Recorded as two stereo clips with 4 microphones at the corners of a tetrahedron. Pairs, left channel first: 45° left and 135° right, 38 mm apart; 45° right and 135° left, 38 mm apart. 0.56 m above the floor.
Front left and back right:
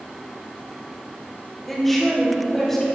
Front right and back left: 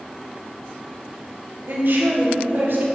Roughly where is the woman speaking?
Behind left.